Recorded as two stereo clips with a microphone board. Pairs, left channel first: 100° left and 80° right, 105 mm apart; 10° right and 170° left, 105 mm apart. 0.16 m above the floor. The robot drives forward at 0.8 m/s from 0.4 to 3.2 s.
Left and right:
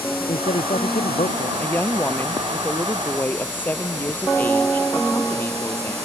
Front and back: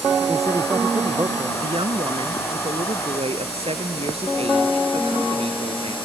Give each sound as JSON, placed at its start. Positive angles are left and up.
{"t": 0.3, "sound": "a man speaking", "azimuth_deg": 110}
{"t": 1.6, "sound": "a woman speaking", "azimuth_deg": 170}